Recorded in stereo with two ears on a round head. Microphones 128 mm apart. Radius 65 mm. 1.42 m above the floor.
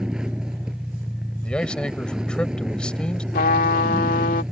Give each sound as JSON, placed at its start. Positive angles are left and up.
{"t": 0.0, "sound": "a vehicle", "side_deg": -5}
{"t": 1.4, "sound": "a man speaking", "side_deg": 5}
{"t": 3.3, "sound": "a trumpet", "side_deg": 70}